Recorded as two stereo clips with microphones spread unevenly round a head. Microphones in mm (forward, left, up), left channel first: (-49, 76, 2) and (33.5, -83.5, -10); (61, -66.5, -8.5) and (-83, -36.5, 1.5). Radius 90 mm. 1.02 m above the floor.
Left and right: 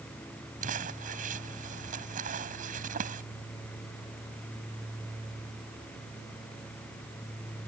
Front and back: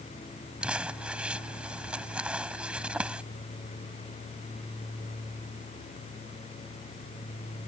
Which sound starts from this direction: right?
Crumpling, at 0.6 s.